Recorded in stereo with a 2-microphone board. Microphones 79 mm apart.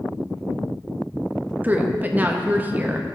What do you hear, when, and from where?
1.6 s a woman speaking: 20° right (ahead or behind), 0.6 m